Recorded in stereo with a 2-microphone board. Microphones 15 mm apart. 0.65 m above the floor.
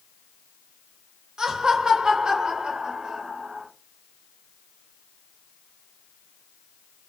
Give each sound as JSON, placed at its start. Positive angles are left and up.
{"t": 1.4, "sound": "laughter", "side_deg": -50, "distance_m": 2.0}